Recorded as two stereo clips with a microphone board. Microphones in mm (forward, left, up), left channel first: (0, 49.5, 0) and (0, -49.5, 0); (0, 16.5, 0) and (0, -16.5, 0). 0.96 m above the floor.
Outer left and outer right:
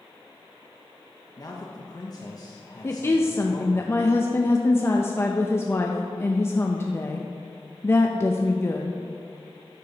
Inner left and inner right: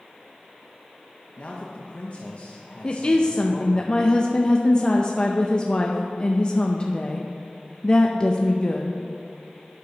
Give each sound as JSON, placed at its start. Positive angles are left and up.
{"t": 1.4, "sound": "a man speaking", "side_deg": 40, "distance_m": 0.9}
{"t": 2.8, "sound": "a woman speaking", "side_deg": 25, "distance_m": 0.5}